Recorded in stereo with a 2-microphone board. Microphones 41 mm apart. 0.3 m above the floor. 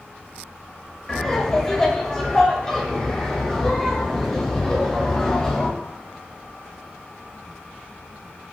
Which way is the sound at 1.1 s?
10° left (ahead or behind).